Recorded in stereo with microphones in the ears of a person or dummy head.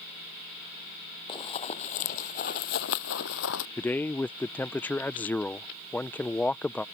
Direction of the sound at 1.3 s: 25° left (ahead or behind).